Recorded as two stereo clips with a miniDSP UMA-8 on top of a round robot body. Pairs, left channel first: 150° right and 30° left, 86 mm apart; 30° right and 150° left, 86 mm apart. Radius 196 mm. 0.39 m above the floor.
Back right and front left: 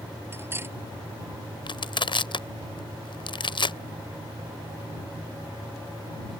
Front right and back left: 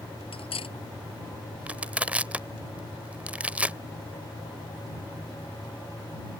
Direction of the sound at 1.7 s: 135° right.